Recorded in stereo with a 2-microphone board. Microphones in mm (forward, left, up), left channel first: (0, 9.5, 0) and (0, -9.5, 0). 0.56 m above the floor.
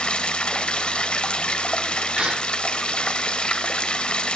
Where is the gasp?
65° right (ahead or behind), 6.5 m.